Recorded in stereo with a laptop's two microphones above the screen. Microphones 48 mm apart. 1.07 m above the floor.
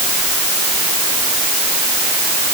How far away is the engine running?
No engine running in this recording.